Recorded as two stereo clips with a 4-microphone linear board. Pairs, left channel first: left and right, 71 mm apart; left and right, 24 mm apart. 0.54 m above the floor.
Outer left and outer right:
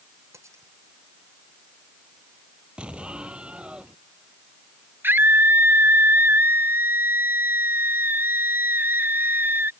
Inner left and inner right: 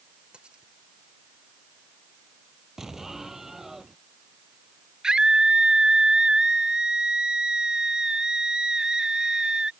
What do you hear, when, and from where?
0.3 s cutlery clinking: 45° right (ahead or behind)
2.8 s an explosion: 15° right (ahead or behind)
5.0 s a scream: 30° right (ahead or behind)